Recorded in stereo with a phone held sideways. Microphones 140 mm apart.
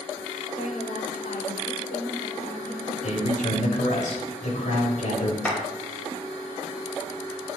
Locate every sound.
0.6 s a woman speaking: 65° left (ahead or behind), 4.5 m; by 2.9 s 75° left (ahead or behind), 6.5 m
3.0 s a man speaking: 65° left (ahead or behind), 5.5 m
5.5 s a clap: 10° left (ahead or behind), 5 m